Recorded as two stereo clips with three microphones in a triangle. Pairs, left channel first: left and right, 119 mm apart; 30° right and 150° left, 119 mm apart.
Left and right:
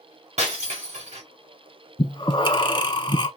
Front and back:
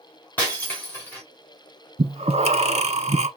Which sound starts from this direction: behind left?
Breathing, at 2.0 s.